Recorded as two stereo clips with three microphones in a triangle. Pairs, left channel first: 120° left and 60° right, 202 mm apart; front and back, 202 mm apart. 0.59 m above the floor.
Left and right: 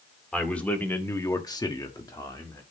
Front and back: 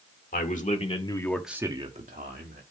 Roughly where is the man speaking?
Ahead left.